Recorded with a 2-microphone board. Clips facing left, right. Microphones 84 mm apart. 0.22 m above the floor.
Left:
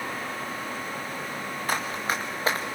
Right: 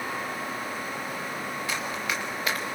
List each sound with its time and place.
1.7 s running footsteps: 45° left (ahead or behind), 1.8 m; by 2.8 s 30° left (ahead or behind), 1.9 m